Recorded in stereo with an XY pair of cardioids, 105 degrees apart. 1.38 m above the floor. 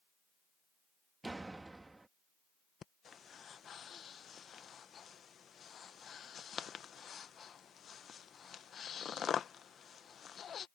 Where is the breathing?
50° left.